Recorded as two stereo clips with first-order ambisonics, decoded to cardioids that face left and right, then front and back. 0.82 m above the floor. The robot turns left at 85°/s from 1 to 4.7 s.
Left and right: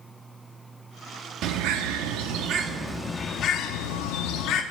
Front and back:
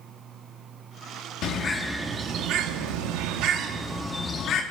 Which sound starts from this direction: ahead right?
A bird, at 1.4 s.